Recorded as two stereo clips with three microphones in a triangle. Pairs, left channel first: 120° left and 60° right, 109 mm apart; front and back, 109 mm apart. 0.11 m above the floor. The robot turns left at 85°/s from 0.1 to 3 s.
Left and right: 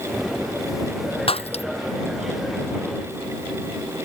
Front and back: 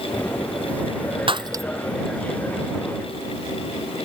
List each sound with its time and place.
1.3 s breaking glass: 145° left; by 1.6 s 115° left